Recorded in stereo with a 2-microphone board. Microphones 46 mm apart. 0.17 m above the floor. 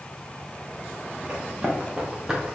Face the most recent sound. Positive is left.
turn(degrees=-15)  # may be behind; listen again after turning